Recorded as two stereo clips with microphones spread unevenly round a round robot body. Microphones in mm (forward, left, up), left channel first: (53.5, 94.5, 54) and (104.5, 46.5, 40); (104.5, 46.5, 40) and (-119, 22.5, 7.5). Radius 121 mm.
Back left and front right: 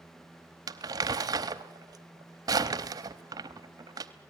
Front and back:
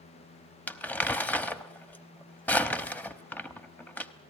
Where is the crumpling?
80° right, 0.8 m.